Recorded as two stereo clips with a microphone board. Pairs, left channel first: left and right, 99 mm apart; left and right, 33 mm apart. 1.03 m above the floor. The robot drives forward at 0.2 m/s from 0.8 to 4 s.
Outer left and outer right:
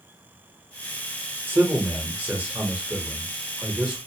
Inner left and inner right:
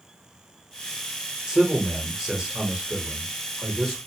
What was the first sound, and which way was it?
A man speaking, 20° right (ahead or behind).